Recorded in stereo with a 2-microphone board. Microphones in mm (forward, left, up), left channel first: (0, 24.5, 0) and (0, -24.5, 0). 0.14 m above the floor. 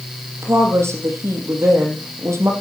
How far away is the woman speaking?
About 5.5 m.